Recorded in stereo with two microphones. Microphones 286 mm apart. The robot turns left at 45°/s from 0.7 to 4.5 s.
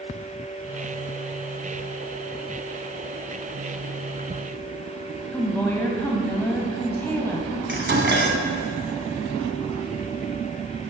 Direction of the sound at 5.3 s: 10° left (ahead or behind).